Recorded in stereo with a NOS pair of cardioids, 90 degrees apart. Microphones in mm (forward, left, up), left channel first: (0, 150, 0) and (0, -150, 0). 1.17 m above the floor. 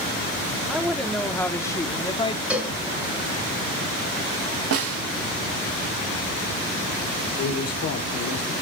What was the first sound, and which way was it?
A woman speaking, straight ahead.